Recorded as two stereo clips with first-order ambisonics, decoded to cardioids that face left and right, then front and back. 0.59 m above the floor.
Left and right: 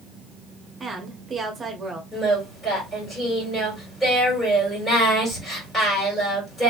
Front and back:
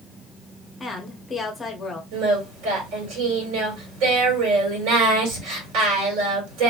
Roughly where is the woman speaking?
Ahead right.